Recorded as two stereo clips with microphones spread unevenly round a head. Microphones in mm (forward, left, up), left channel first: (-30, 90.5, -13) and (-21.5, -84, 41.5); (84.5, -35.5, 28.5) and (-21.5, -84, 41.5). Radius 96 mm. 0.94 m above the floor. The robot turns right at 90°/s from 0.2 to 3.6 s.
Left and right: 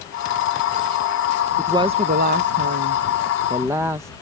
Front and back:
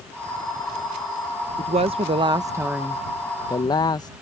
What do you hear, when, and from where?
1.6 s a woman speaking: straight behind; by 4.2 s straight ahead